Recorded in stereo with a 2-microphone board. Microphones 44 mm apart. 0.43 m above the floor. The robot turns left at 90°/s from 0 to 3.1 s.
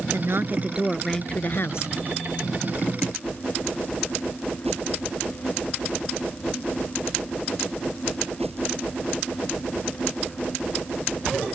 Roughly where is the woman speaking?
Right.